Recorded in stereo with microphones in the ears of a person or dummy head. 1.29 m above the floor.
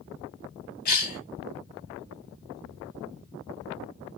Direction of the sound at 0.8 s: 50° left (ahead or behind).